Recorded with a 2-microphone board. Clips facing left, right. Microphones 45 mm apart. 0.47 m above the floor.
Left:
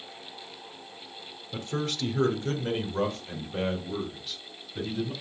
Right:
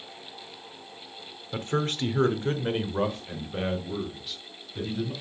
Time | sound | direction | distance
1.5 | a man speaking | 45° right (ahead or behind) | 1.0 m